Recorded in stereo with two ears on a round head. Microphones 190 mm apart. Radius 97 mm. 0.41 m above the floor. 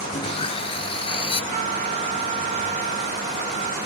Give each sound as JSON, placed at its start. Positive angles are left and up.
{"t": 0.1, "sound": "sawing", "side_deg": 30}
{"t": 1.5, "sound": "a trumpet", "side_deg": -35}